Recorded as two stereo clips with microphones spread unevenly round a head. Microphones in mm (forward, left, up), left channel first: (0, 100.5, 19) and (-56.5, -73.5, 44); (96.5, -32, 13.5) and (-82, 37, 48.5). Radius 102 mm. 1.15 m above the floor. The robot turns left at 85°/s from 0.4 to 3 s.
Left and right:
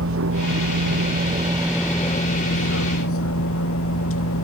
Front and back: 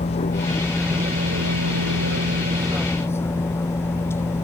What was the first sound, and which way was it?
A vehicle, 80° right.